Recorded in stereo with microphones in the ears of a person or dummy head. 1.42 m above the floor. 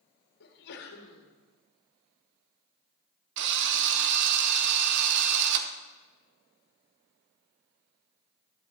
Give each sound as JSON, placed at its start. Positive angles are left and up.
{"t": 0.4, "sound": "a sneeze", "side_deg": 65, "distance_m": 2.0}
{"t": 3.4, "sound": "a drill", "side_deg": -60, "distance_m": 0.9}